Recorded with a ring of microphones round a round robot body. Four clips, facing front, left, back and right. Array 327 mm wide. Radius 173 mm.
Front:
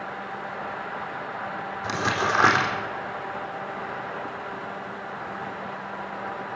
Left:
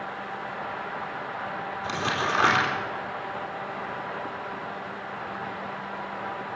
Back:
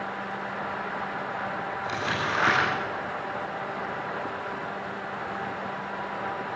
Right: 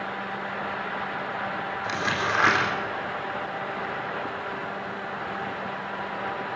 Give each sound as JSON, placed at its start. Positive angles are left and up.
{"t": 1.8, "sound": "crumpling", "azimuth_deg": 20, "distance_m": 4.0}